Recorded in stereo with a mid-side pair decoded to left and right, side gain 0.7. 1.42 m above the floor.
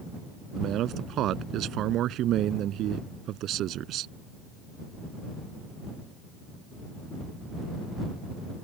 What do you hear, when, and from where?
0.6 s a man speaking: 50° right